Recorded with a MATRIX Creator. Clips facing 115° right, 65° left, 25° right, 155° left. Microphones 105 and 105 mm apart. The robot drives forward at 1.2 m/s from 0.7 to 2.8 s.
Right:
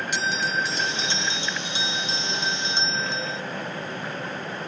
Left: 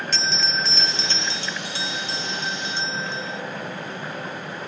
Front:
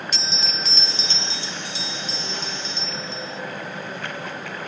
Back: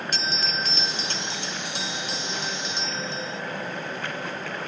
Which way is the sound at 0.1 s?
175° left.